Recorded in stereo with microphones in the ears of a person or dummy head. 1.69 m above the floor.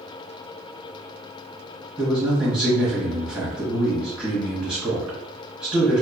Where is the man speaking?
15° right (ahead or behind), 1.1 m.